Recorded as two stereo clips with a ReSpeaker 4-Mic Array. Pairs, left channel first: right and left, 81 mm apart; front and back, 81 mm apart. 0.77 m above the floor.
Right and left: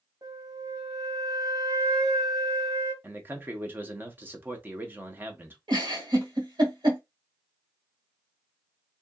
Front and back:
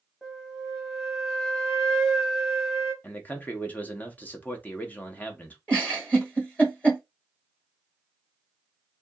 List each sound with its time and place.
0.2 s a flute: 90° left, 1.0 m
3.0 s a man speaking: 45° left, 0.6 m
5.7 s a giggle: 70° left, 1.3 m